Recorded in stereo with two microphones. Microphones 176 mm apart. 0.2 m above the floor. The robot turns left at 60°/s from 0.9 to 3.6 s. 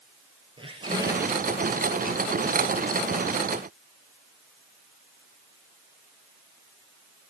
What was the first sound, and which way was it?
A squeak, 150° right.